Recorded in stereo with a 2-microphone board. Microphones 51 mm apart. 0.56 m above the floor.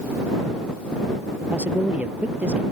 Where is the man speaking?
30° right (ahead or behind).